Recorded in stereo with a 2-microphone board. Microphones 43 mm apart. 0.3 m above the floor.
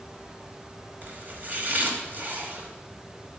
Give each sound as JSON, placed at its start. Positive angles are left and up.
{"t": 1.0, "sound": "chopping", "side_deg": -45, "distance_m": 1.4}